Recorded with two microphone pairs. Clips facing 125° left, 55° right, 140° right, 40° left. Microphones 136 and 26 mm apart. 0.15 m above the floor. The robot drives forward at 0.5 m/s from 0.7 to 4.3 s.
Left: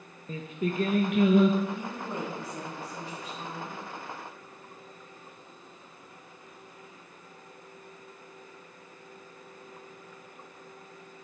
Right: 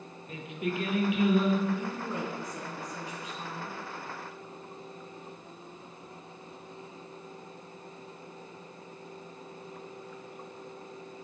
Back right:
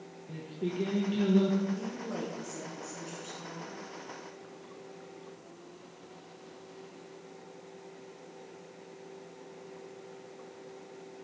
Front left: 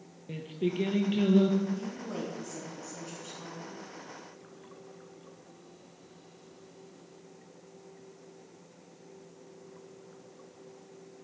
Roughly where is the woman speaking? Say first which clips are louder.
Right 1 dB, even; left.